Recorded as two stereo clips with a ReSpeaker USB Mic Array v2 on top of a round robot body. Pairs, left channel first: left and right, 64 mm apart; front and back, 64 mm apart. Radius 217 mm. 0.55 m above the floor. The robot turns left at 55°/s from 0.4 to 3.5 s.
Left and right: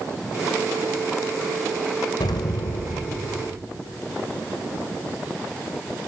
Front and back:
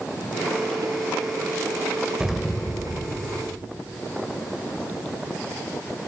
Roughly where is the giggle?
No giggle in this recording.